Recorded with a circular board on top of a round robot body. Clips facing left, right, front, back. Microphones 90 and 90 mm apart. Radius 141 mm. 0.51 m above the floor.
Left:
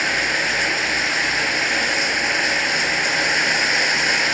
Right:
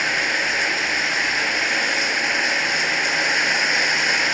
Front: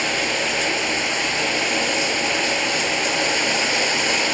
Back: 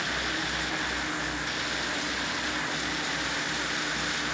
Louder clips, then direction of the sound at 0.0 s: Left 1 dB, front 8 dB; straight ahead.